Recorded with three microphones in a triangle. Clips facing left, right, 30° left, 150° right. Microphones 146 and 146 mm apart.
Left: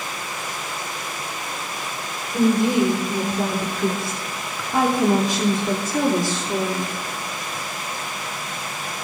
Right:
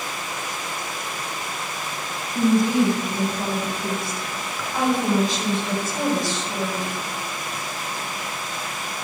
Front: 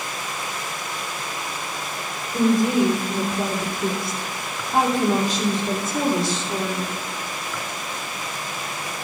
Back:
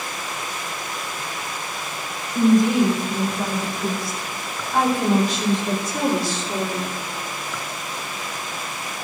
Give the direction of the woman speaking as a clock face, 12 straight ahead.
9 o'clock.